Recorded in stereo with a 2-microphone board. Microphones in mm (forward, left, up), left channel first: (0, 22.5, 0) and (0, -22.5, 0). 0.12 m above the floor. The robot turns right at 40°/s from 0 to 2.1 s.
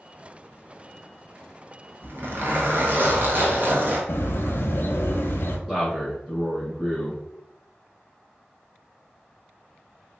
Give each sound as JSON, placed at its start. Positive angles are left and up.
{"t": 2.0, "sound": "a zipper", "side_deg": -50, "distance_m": 0.9}
{"t": 4.1, "sound": "a bird", "side_deg": 55, "distance_m": 0.5}
{"t": 5.7, "sound": "a man speaking", "side_deg": -20, "distance_m": 1.3}